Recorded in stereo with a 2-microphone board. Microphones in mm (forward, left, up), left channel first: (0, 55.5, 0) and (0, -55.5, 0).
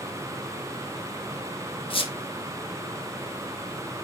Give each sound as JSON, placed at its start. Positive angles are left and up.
{"t": 1.9, "sound": "a squeak", "side_deg": 55, "distance_m": 0.8}